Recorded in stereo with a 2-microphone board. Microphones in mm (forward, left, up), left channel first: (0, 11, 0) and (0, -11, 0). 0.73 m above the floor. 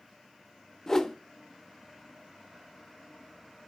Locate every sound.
0.9 s a whoosh: 20° left (ahead or behind), 0.6 m